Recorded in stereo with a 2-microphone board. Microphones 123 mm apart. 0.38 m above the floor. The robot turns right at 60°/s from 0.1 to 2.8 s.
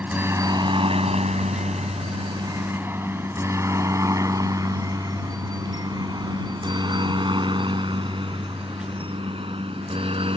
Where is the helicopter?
15° right (ahead or behind); by 10.4 s 50° right (ahead or behind).